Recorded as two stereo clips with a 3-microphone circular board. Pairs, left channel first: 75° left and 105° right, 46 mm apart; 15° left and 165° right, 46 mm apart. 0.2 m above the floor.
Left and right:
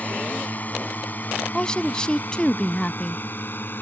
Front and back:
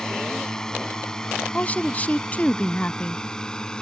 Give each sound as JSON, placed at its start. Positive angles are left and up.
{"t": 0.0, "sound": "a drone", "azimuth_deg": 80}
{"t": 1.5, "sound": "a woman speaking", "azimuth_deg": 15}